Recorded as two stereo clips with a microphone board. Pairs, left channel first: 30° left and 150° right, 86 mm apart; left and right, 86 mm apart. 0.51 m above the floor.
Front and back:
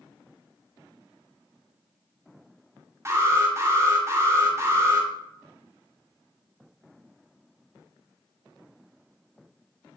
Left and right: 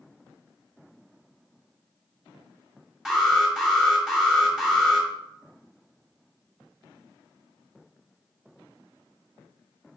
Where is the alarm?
175° right, 1.7 m.